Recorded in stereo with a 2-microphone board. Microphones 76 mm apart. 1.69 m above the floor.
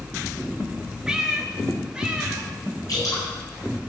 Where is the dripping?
50° left (ahead or behind), 7.5 m.